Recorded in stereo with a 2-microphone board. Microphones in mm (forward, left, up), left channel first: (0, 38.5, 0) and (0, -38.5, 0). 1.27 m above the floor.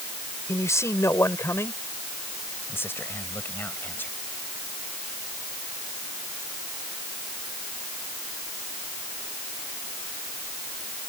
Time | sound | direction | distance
0.5 | a man speaking | 40° left (ahead or behind) | ?